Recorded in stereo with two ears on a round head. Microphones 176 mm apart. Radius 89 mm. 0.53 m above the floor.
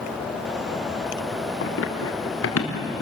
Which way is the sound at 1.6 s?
70° left (ahead or behind).